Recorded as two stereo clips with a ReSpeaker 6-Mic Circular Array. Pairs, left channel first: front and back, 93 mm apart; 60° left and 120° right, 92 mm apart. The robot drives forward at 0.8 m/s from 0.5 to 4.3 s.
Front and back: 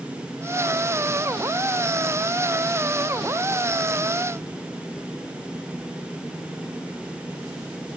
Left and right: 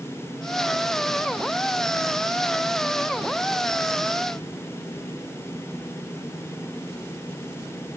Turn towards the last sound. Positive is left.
No sound to turn to.